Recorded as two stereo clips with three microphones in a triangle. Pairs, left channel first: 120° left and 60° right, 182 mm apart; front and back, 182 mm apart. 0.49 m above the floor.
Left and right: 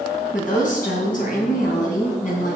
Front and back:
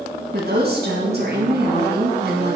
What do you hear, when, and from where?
0.3 s a woman speaking: 160° left, 4 m